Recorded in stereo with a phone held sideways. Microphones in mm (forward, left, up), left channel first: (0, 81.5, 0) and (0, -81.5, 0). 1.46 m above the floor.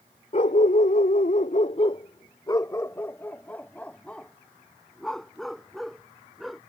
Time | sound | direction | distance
0.3 | a dog barking | 50° left (ahead or behind) | ?